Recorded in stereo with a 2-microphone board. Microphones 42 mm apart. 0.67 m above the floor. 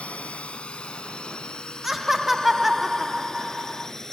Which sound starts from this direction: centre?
Laughter, at 1.8 s.